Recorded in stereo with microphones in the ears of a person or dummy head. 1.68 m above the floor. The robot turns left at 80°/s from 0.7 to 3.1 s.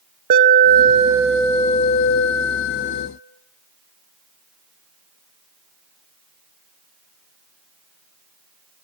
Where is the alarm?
135° right, 1.5 m; by 3.1 s 35° left, 1.5 m.